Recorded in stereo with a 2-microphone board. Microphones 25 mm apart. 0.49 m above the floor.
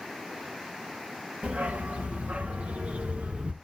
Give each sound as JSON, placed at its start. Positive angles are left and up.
{"t": 1.4, "sound": "a dog barking", "side_deg": -85, "distance_m": 2.5}